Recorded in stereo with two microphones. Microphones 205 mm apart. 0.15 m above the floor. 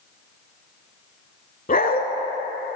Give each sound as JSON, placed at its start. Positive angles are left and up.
{"t": 1.7, "sound": "a dog barking", "side_deg": 45, "distance_m": 0.7}